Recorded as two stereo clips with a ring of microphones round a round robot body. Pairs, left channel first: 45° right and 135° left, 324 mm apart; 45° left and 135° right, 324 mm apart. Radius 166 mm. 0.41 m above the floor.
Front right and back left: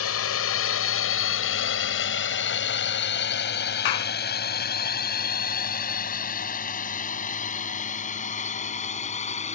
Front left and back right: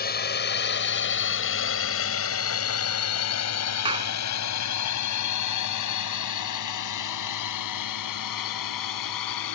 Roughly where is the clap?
Ahead right.